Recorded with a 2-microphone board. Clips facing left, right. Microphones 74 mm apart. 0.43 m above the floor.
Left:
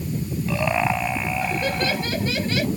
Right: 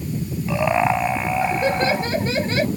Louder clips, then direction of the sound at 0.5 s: Right 4 dB; 20° right (ahead or behind).